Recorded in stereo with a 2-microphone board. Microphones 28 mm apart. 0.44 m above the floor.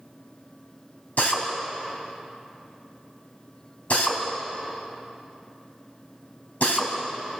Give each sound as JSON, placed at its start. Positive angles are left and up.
{"t": 1.2, "sound": "a drill", "side_deg": 70, "distance_m": 3.5}